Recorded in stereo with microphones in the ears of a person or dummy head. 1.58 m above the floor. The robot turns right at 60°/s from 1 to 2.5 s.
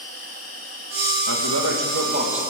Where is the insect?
175° right, 6.5 m; by 2.5 s 85° right, 6.5 m.